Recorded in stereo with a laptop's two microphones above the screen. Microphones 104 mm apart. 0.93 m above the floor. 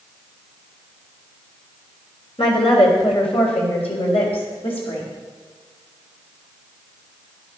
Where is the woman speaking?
65° left (ahead or behind), 3 m; by 5.0 s 80° left, 4.5 m.